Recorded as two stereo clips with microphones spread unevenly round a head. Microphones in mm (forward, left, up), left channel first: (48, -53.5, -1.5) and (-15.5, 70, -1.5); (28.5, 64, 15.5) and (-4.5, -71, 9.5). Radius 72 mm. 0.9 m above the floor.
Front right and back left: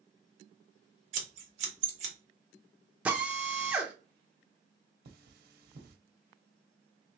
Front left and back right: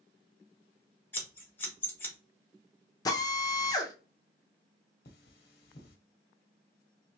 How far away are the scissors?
About 1.6 m.